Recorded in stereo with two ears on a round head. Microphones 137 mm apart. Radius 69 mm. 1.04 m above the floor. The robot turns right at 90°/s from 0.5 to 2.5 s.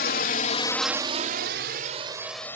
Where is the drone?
65° left (ahead or behind); by 2.6 s 15° left (ahead or behind).